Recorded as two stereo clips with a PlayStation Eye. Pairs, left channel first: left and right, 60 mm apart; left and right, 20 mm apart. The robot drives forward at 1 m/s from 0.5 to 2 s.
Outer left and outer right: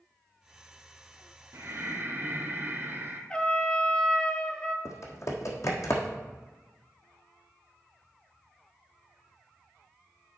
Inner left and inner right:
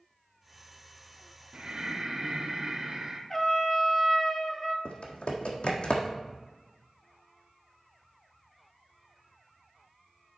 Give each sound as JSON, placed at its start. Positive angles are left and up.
{"t": 1.5, "sound": "breathing", "side_deg": -60, "distance_m": 0.8}
{"t": 3.3, "sound": "a trumpet", "side_deg": 20, "distance_m": 0.7}
{"t": 4.8, "sound": "typing on a keyboard", "side_deg": 65, "distance_m": 1.4}